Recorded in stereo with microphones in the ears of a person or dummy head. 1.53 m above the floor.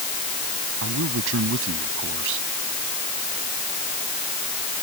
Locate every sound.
0.8 s a man speaking: 70° right (ahead or behind)